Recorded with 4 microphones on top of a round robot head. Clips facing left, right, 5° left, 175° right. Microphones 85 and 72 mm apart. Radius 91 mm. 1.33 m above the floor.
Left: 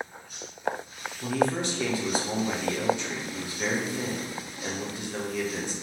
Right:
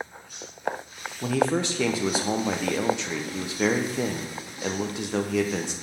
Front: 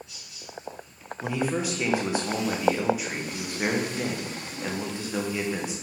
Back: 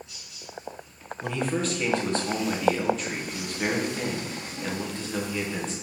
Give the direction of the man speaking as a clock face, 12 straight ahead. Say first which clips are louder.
Right 2 dB, even; 3 o'clock.